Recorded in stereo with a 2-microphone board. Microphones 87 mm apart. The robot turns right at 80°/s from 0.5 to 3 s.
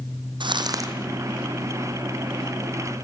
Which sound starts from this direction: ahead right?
Crumpling, at 0.4 s.